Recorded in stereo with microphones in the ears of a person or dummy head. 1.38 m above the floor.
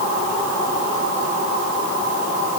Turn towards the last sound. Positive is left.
No sound to turn to.